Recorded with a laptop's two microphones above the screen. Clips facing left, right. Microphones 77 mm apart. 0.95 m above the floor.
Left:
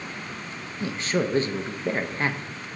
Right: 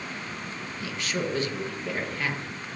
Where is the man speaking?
35° left (ahead or behind), 0.7 m.